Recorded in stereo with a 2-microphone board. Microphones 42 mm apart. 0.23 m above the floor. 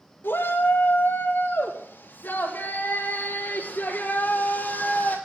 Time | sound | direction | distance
0.2 | a shout | 70° left (ahead or behind) | 3.5 m